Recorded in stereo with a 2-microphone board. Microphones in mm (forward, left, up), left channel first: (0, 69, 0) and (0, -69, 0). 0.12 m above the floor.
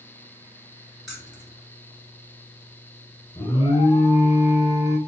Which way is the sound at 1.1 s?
Centre (ahead or behind).